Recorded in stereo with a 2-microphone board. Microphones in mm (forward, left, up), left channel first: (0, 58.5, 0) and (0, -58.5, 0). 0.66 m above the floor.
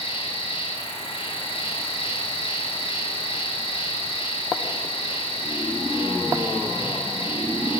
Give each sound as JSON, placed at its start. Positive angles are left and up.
{"t": 0.0, "sound": "an insect", "side_deg": 50, "distance_m": 1.2}